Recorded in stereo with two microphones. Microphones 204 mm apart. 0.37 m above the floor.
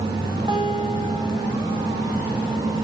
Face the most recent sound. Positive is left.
turn(degrees=-20)  # may be behind; listen again after turning